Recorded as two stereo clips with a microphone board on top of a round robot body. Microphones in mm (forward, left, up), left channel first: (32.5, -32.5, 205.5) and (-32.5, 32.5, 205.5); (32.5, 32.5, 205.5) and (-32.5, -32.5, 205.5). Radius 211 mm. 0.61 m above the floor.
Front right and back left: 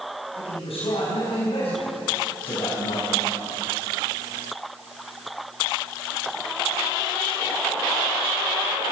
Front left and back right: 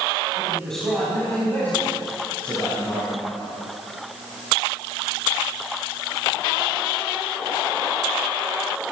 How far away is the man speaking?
About 5.5 m.